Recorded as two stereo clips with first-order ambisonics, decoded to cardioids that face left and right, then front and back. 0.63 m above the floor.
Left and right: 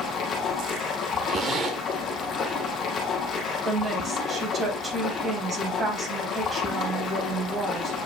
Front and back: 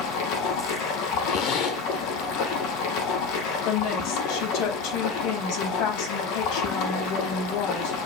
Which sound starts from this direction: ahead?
A woman speaking, at 3.6 s.